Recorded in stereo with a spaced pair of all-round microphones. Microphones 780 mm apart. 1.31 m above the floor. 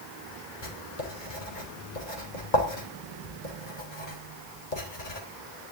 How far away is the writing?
About 4 m.